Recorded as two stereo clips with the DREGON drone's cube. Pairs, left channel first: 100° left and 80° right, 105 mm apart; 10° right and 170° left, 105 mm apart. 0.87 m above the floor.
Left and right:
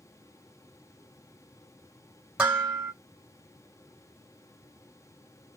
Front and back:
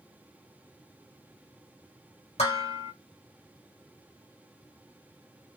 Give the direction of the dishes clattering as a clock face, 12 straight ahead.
12 o'clock.